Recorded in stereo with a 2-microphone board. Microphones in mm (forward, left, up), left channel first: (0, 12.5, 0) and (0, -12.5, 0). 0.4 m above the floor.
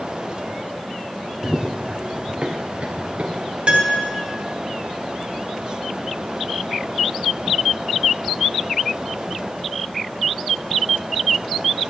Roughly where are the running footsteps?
Right.